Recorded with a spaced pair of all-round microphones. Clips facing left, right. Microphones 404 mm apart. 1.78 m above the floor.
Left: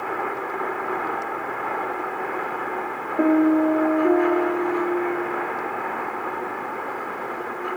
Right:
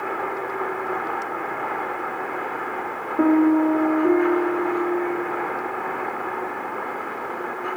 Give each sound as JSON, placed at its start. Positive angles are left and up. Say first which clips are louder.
{"t": 3.2, "sound": "a piano", "louder": "right 1 dB", "side_deg": -10, "distance_m": 0.8}